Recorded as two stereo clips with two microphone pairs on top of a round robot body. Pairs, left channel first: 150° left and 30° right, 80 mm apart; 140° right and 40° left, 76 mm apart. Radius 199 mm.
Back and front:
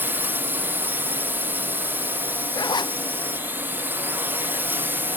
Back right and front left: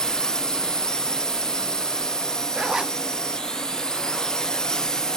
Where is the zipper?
120° left.